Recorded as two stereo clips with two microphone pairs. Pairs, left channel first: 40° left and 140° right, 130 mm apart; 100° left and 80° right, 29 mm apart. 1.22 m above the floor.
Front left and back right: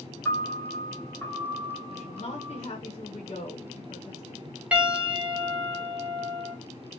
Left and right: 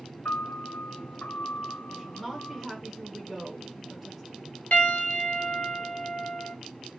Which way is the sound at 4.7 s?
135° left.